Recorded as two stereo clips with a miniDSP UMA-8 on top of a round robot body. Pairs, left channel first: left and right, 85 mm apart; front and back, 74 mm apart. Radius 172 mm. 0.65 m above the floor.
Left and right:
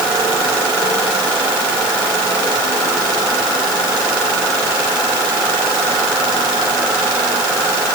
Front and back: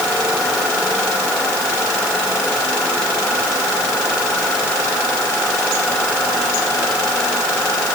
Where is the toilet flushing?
No toilet flushing in this recording.